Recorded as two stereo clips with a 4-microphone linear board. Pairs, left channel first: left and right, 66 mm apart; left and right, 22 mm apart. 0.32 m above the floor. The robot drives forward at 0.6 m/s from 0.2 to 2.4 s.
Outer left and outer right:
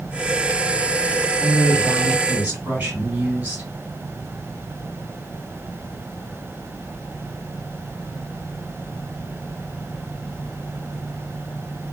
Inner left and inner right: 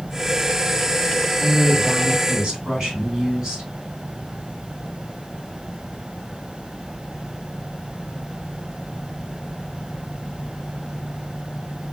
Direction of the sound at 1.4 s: 25° right (ahead or behind).